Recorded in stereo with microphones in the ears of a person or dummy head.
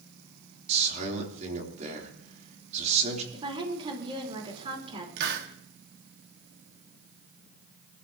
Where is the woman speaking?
30° right (ahead or behind), 4 m.